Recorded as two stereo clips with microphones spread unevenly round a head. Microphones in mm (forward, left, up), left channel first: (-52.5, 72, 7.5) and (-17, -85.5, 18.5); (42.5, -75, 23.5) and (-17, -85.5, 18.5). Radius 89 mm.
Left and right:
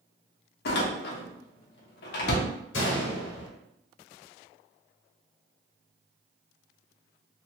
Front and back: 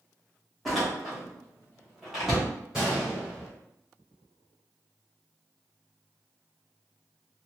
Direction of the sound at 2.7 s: 100° left.